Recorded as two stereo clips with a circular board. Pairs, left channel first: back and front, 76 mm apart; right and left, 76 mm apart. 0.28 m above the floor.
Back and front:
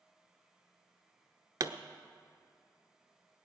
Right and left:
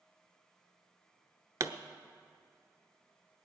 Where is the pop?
40° left, 0.6 m.